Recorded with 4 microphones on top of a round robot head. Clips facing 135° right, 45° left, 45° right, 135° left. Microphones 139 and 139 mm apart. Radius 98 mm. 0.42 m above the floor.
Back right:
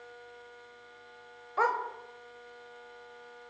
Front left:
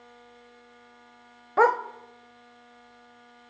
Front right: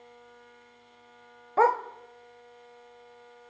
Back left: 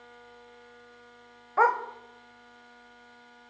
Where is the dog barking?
15° left, 1.1 m.